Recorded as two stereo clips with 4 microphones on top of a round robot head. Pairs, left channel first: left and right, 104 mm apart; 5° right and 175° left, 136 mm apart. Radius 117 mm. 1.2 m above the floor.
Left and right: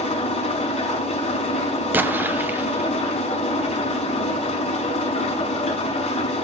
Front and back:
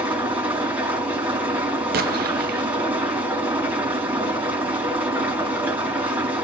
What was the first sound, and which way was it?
An engine running, 100° left.